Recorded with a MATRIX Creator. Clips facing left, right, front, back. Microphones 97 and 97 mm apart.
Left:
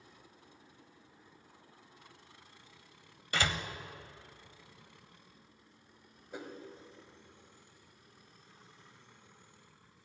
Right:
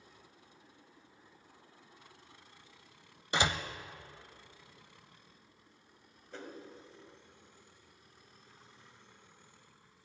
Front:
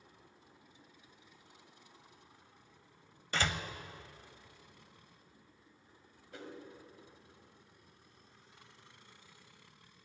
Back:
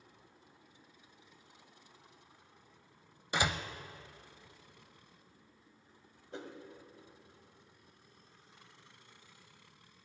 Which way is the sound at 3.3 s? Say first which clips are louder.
Right 2 dB, back 2 dB; 125° right.